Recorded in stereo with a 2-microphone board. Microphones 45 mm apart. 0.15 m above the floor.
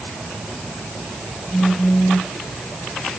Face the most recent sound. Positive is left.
turn(degrees=30)  # may be behind; listen again after turning